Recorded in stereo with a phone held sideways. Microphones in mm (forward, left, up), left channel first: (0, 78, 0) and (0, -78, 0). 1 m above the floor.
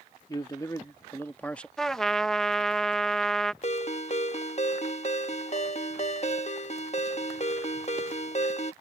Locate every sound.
0.3 s a man speaking: 25° left (ahead or behind); by 1.7 s 5° left (ahead or behind)
1.8 s a trumpet: 5° left (ahead or behind)
3.6 s a ringtone: 45° left (ahead or behind)